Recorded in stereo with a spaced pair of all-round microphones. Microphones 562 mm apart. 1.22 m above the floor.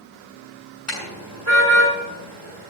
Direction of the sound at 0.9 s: 60° left (ahead or behind).